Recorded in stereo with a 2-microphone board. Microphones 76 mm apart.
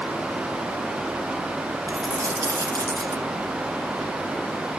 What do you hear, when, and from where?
1.9 s a dropped coin: 60° right (ahead or behind), 2.0 m